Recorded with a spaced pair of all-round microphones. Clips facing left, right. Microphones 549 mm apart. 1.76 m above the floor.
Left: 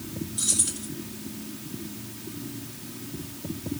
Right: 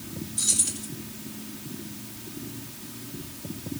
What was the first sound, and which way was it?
Keys jangling, 45° right (ahead or behind).